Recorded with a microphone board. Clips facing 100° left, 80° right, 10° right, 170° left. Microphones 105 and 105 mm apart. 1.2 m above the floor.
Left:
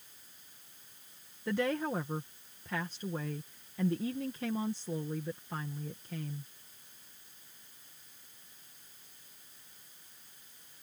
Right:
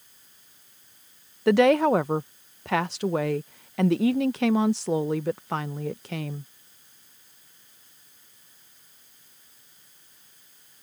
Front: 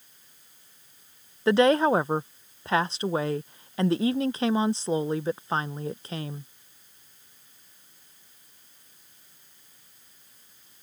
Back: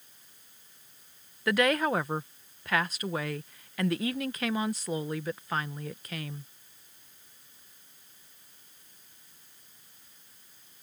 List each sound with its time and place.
1.5 s a woman speaking: 75° right